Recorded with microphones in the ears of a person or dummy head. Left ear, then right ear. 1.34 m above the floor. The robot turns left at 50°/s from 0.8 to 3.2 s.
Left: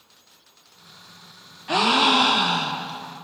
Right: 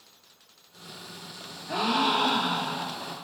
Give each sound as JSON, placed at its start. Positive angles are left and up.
{"t": 1.7, "sound": "a gasp", "azimuth_deg": 110, "distance_m": 0.7}